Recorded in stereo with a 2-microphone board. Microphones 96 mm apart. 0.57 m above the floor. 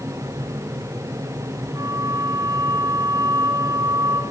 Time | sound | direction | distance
1.7 | a flute | 40° right (ahead or behind) | 4 m